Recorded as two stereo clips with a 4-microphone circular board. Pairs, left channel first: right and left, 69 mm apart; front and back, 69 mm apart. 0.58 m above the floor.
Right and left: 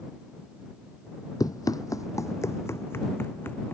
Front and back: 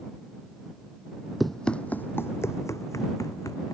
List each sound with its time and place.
1.4 s running footsteps: 90° right; by 3.8 s 30° right